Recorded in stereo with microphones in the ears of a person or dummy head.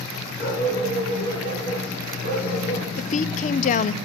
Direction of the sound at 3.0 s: 40° left (ahead or behind).